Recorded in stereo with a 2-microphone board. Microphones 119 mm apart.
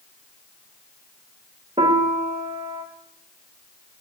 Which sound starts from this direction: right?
A piano, at 1.8 s.